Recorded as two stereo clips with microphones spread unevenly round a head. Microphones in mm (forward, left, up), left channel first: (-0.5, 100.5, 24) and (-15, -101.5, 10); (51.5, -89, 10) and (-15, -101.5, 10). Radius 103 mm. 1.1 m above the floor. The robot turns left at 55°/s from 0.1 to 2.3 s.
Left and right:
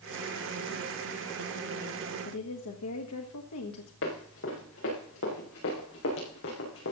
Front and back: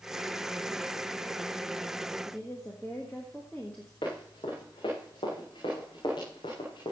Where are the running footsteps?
55° left, 7 m; by 6.9 s 60° left, 5 m.